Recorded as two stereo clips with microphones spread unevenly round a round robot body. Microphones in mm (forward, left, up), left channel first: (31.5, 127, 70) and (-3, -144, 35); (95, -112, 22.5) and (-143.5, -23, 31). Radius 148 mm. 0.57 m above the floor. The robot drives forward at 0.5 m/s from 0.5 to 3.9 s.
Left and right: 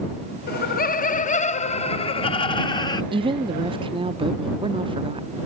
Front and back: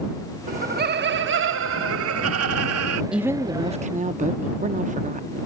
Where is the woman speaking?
110° right; by 5.5 s 150° right.